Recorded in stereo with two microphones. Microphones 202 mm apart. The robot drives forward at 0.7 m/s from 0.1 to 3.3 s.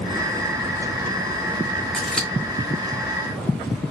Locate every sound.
1.9 s scissors: 5° left (ahead or behind), 1.2 m